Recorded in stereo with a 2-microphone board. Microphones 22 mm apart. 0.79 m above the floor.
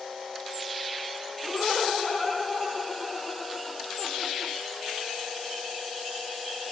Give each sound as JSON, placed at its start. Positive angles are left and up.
{"t": 1.4, "sound": "laughter", "side_deg": 30, "distance_m": 2.5}